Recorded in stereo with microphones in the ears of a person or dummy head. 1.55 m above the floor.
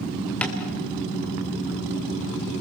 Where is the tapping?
15° left (ahead or behind), 3 m.